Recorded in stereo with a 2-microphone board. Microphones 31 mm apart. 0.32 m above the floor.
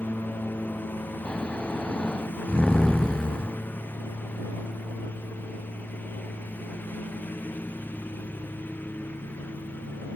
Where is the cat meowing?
No cat meowing in this recording.